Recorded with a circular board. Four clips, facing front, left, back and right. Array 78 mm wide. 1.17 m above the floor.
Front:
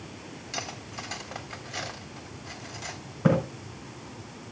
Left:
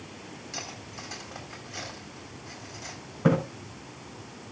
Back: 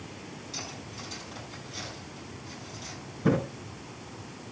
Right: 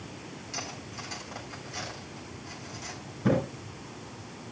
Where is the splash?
45° left, 6.5 m.